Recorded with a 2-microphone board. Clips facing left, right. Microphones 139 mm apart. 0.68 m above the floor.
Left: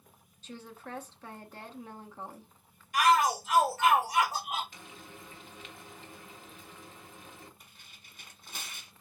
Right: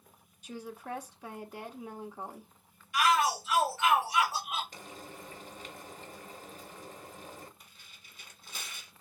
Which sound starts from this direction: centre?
A woman speaking, at 0.4 s.